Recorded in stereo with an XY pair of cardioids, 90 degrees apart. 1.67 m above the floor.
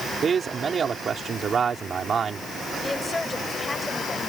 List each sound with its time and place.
0.2 s a man speaking: 55° right
2.8 s a woman speaking: 15° left